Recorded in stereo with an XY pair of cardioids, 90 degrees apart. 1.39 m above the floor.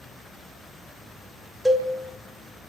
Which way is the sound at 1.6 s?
25° right.